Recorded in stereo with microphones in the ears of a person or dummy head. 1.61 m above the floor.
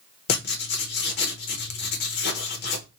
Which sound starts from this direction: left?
Writing, at 0.3 s.